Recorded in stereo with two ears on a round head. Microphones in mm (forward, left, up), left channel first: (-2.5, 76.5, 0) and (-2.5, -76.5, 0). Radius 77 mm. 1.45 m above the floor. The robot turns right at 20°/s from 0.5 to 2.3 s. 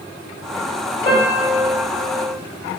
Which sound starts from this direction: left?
A piano, at 1.1 s.